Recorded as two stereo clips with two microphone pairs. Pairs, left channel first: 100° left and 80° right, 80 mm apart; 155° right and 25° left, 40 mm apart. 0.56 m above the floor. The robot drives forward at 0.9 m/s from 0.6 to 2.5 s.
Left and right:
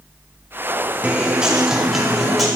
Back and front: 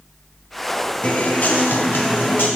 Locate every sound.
1.0 s a guitar: 140° right, 1.0 m; by 2.5 s 170° right, 1.9 m